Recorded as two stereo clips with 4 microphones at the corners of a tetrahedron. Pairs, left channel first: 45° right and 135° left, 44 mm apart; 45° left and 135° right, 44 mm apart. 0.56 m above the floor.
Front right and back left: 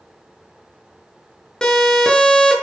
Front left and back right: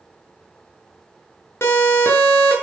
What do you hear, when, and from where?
1.6 s a siren: 25° left, 6.5 m